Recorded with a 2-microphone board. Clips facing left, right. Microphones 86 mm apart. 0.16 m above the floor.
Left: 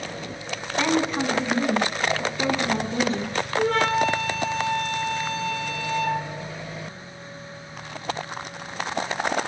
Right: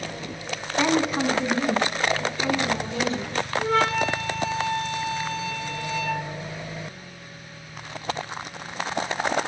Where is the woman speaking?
10° right (ahead or behind), 1.1 m; by 3.4 s 40° left (ahead or behind), 1.5 m.